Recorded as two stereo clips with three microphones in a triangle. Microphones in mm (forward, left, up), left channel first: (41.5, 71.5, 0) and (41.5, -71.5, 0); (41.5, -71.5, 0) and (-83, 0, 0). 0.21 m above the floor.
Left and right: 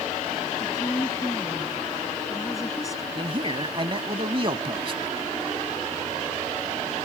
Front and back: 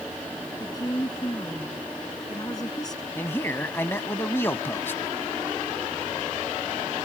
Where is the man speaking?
95° right.